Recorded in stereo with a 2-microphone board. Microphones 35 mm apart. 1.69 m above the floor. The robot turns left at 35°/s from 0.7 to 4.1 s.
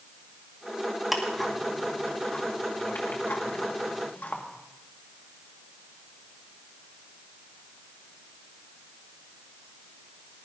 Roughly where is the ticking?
Centre.